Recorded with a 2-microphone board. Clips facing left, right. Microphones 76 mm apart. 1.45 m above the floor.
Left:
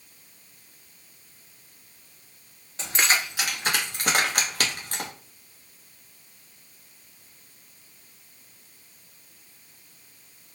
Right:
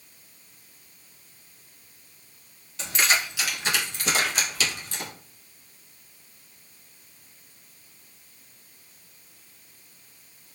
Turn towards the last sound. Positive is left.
turn(degrees=50)  # may be behind; listen again after turning